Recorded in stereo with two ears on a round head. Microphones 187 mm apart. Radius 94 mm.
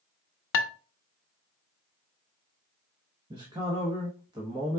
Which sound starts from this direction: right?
A man speaking, at 3.3 s.